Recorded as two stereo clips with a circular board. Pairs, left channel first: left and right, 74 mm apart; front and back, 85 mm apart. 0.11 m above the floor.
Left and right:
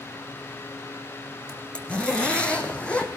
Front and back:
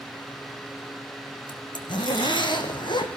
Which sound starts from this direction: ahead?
A zipper, at 1.5 s.